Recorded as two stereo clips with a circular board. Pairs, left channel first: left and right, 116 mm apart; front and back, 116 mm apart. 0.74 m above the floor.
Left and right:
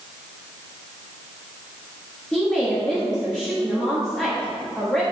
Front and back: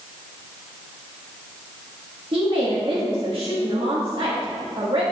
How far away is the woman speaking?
About 1.5 m.